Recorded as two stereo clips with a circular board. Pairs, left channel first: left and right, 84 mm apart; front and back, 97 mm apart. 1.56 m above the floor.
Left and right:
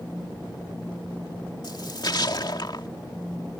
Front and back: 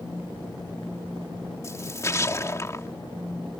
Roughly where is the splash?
Ahead left.